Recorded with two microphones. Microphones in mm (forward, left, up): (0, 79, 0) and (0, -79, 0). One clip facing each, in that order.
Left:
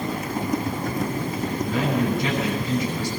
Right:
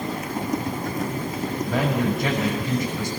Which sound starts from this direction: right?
A man speaking, at 1.6 s.